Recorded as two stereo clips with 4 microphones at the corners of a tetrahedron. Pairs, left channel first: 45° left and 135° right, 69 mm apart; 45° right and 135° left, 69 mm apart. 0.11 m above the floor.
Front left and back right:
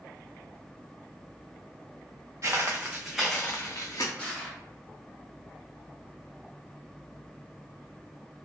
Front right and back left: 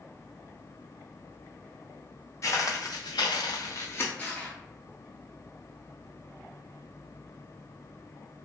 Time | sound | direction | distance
2.4 | footsteps | 90° right | 0.8 m
4.2 | crushing | 5° right | 1.0 m